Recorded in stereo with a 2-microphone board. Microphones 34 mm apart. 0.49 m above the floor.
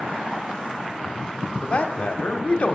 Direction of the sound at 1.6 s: 40° left (ahead or behind).